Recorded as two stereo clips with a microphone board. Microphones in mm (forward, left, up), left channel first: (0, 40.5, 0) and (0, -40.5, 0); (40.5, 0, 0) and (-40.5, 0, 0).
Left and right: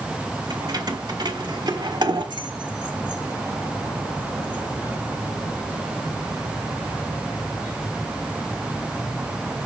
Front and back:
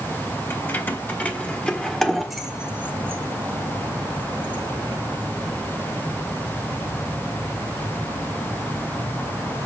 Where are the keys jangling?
60° right, 2 m; by 5.0 s 165° right, 1.6 m.